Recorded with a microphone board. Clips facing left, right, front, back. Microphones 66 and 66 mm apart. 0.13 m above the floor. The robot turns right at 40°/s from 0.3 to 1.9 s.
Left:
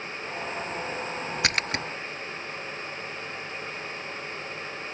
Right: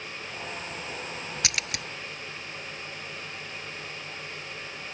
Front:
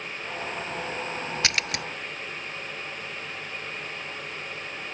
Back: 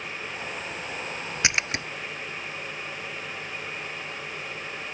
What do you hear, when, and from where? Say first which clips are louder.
1.4 s a splash: left 7 dB, back 4 dB; 115° left; by 1.9 s 130° left